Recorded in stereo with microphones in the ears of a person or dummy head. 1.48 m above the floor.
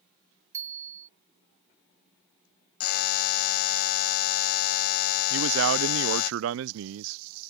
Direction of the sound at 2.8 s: 50° left (ahead or behind).